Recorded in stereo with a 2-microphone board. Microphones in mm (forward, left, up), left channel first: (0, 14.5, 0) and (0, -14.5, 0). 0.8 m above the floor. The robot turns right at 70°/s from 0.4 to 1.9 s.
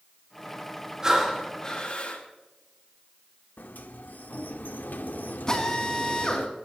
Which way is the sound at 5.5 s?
30° left (ahead or behind).